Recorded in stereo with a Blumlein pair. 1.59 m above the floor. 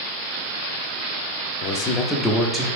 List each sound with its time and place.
1.6 s a man speaking: 45° left, 0.5 m; by 2.6 s 15° right, 0.7 m